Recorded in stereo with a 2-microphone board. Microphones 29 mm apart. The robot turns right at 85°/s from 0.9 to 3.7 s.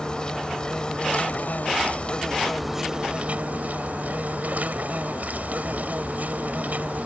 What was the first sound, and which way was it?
An insect, 35° left.